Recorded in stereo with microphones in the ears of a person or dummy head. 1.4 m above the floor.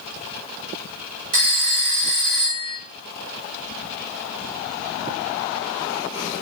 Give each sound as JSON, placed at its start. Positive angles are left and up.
{"t": 1.3, "sound": "a phone ringing", "side_deg": -45, "distance_m": 1.8}